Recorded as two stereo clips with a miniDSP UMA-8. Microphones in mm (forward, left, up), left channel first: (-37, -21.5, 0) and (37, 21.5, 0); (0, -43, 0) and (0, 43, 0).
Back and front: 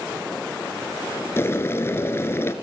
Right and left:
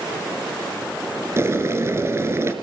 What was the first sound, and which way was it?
Boiling, 150° left.